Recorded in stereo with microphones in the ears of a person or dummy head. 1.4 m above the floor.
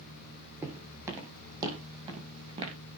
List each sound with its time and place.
0.6 s footsteps: 15° right (ahead or behind), 4.5 m; by 2.8 s 30° right (ahead or behind), 4.5 m